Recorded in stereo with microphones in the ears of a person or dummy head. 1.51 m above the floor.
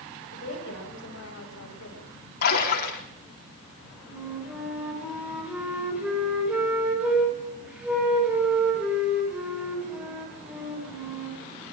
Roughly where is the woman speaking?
Left.